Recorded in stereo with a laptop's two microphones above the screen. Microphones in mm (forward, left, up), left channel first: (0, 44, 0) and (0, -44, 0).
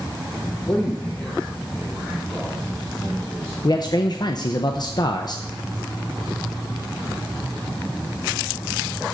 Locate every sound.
0.7 s a man speaking: 20° left (ahead or behind), 0.9 m; by 3.5 s 10° left (ahead or behind), 2.5 m
3.6 s a man speaking: 50° left (ahead or behind), 0.6 m